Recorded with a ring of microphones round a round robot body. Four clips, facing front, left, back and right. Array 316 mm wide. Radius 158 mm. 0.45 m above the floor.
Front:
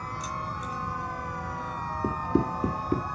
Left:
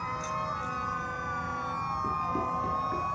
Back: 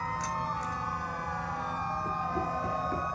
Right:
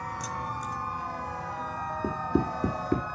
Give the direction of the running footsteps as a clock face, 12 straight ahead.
1 o'clock.